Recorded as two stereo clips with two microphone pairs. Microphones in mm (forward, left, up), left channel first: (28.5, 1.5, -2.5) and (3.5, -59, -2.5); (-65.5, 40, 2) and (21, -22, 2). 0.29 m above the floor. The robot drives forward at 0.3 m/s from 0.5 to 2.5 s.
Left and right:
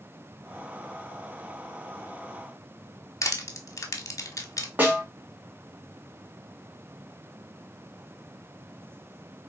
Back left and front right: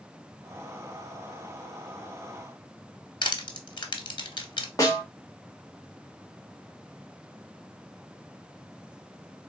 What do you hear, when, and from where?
3.2 s crushing: 105° left, 0.8 m
4.8 s a snare drum: 165° right, 1.4 m